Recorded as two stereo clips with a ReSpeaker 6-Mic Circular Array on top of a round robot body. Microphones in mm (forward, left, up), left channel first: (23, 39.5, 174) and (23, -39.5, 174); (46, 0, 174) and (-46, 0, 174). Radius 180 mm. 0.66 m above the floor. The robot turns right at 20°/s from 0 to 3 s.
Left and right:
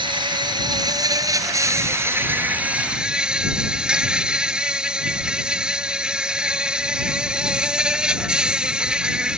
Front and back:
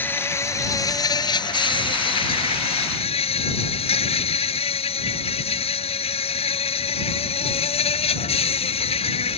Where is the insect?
70° right; by 9.4 s 10° right.